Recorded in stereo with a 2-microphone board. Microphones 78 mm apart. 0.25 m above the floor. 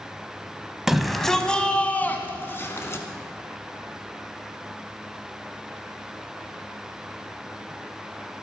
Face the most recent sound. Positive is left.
turn(degrees=30)  # may be behind; listen again after turning